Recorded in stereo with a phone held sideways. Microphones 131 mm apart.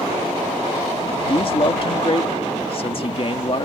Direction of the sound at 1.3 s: 45° left (ahead or behind).